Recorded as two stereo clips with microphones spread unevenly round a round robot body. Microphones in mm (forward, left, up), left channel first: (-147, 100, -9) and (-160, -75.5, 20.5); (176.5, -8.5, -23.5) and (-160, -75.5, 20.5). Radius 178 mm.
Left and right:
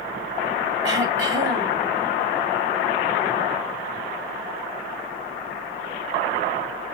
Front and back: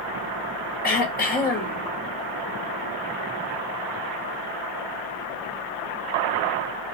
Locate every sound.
0.8 s throat clearing: 55° right, 1.9 m